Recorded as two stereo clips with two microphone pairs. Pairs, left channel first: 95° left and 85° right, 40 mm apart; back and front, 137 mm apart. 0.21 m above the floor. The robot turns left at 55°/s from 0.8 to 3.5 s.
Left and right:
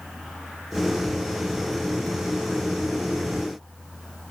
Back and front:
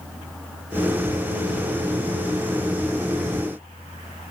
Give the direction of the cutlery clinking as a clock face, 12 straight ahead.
No cutlery clinking in this recording.